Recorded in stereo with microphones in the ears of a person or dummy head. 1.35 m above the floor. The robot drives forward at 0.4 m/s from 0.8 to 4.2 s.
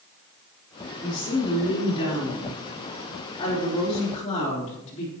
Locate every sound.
1.0 s a woman speaking: 30° left (ahead or behind), 3.5 m; by 5.1 s 45° left (ahead or behind), 2.5 m